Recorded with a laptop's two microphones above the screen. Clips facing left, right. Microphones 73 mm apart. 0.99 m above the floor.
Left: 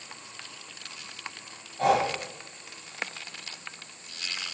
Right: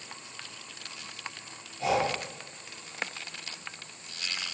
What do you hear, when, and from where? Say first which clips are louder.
1.8 s breathing: left 4 dB; 60° left (ahead or behind), 0.7 m